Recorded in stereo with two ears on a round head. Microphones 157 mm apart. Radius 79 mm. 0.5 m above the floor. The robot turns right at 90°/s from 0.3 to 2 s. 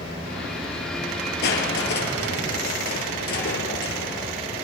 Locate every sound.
1.4 s crushing: 65° left, 1.8 m; by 4.3 s 115° left, 1.8 m